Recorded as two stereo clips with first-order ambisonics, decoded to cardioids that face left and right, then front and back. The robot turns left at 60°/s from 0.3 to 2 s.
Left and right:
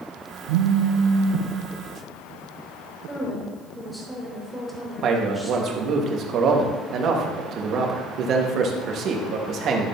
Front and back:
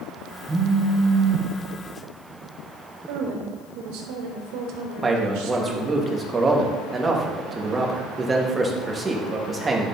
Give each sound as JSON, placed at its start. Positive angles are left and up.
{"t": 0.5, "sound": "a phone buzzing", "azimuth_deg": -95, "distance_m": 0.5}
{"t": 3.1, "sound": "a woman speaking", "azimuth_deg": 180, "distance_m": 2.5}
{"t": 5.0, "sound": "a man speaking", "azimuth_deg": -115, "distance_m": 1.1}